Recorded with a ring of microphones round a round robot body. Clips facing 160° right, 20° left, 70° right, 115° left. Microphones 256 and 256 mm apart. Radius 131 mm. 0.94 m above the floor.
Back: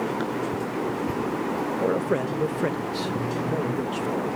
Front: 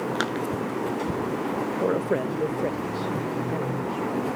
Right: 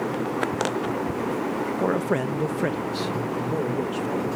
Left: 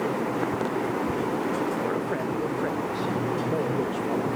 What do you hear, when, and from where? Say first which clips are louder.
1.8 s a man speaking: even, right 4 dB; 60° right, 1.0 m; by 4.3 s 145° right, 1.4 m